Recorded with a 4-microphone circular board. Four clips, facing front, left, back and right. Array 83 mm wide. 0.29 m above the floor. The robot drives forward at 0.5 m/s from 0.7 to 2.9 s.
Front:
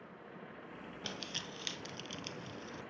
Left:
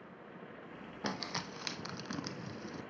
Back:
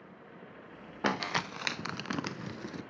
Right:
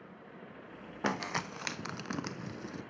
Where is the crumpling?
160° right, 0.6 m; by 2.8 s 170° right, 1.4 m.